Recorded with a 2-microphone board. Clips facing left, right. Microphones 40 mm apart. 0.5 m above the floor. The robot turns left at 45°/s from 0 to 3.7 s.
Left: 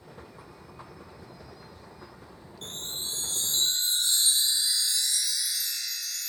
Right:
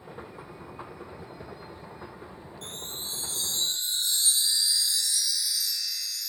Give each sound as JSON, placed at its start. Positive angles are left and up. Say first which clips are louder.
{"t": 2.6, "sound": "a chime", "louder": "left 3 dB", "azimuth_deg": 130, "distance_m": 2.5}